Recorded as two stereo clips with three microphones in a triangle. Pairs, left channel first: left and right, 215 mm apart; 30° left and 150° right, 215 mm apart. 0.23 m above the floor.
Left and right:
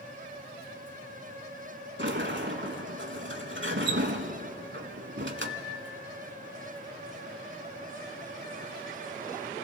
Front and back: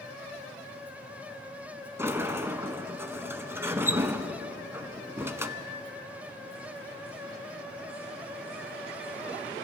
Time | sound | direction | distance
2.0 | a sliding door | 70° right | 0.7 m